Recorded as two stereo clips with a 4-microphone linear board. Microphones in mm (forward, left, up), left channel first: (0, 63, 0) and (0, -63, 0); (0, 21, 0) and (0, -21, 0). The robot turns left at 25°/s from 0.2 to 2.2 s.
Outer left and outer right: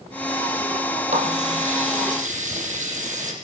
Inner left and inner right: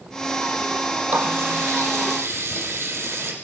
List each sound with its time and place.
1.1 s a running tap: 60° right (ahead or behind), 6 m; by 3.3 s 85° right, 6 m